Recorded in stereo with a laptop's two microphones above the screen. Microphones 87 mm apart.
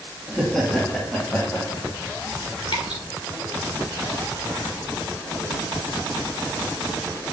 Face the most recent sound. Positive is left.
turn(degrees=65)  # may be behind; listen again after turning